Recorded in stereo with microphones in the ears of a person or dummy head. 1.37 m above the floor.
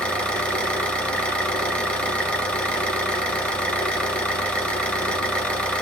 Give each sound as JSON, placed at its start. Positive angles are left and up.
{"t": 0.0, "sound": "an engine running", "side_deg": 5, "distance_m": 0.8}